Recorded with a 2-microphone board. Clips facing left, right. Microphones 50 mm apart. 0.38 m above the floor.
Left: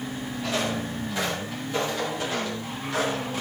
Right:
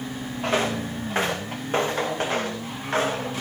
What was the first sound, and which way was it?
Footsteps, 55° right (ahead or behind).